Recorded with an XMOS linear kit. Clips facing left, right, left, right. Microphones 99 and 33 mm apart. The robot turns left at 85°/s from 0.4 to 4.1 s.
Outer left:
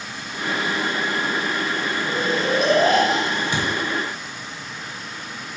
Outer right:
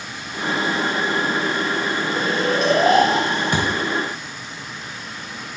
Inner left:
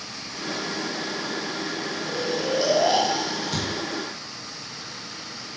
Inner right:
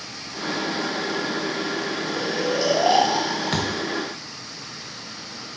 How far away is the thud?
About 1.6 m.